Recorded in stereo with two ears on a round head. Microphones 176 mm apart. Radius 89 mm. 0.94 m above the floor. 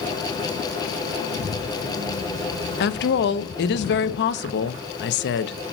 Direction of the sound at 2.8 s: 60° left (ahead or behind).